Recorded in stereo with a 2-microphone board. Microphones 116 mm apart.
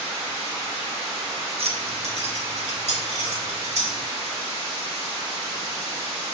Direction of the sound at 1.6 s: 60° right (ahead or behind).